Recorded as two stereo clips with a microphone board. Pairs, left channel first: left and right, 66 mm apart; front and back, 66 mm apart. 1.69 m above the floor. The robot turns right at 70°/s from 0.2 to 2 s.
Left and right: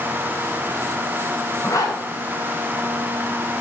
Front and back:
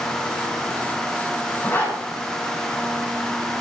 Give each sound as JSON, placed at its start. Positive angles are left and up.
{"t": 1.6, "sound": "a zipper", "azimuth_deg": 55, "distance_m": 8.5}